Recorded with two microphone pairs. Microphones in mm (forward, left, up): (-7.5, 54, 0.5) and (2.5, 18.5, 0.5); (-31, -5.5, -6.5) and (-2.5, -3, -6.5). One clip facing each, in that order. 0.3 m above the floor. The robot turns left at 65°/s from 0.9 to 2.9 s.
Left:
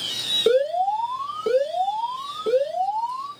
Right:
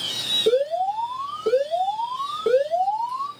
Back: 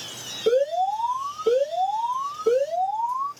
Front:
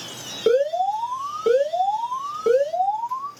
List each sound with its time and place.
0.5 s an alarm: 60° left, 2.5 m; by 3.3 s 70° right, 2.5 m